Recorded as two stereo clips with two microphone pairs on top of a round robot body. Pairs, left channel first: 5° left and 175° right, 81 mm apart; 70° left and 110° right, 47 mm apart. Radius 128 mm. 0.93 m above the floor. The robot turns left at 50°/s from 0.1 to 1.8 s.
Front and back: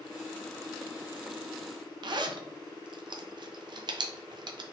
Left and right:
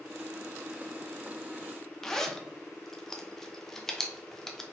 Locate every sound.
2.0 s a zipper: 155° left, 0.5 m